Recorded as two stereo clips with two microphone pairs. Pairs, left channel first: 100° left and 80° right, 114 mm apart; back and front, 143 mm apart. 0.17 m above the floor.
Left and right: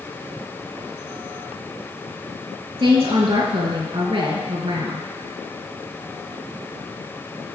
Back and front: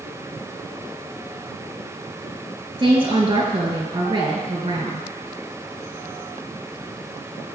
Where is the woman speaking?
50° right, 3.5 m.